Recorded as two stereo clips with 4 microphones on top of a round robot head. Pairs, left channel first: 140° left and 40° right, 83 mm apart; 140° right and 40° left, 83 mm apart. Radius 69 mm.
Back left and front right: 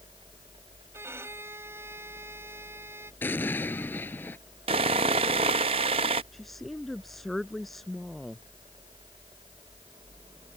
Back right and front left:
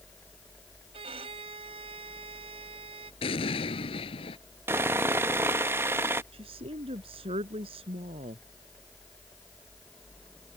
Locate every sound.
0.9 s a violin: 25° left
3.2 s an explosion: 155° right
4.7 s sawing: 25° right
6.3 s a woman speaking: 50° left